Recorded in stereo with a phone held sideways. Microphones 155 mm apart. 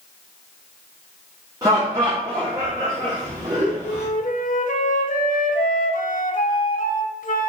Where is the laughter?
20° right (ahead or behind), 1.1 m.